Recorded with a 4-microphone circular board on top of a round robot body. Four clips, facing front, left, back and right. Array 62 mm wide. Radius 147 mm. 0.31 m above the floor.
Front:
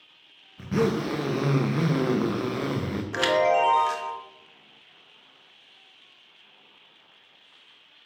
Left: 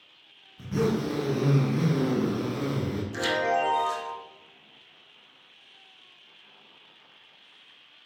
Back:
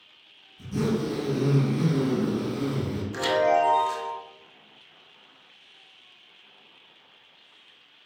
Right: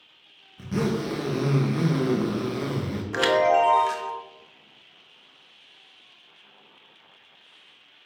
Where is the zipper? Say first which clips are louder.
Even, front 2 dB; 15° right, 0.6 m.